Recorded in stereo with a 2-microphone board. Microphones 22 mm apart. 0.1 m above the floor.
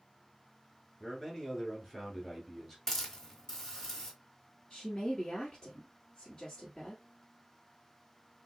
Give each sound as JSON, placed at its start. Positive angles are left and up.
{"t": 1.0, "sound": "a man speaking", "side_deg": 20, "distance_m": 1.2}
{"t": 2.9, "sound": "a hiss", "side_deg": 15, "distance_m": 1.2}
{"t": 4.7, "sound": "a woman speaking", "side_deg": 40, "distance_m": 1.6}